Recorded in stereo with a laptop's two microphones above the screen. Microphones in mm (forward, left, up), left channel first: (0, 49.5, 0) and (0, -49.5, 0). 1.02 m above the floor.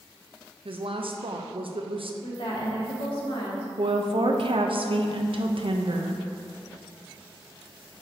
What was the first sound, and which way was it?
A woman speaking, 60° right (ahead or behind).